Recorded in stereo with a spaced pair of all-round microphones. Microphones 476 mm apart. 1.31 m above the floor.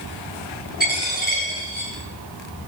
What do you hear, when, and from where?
0.8 s a dropped coin: 20° right (ahead or behind), 7.5 m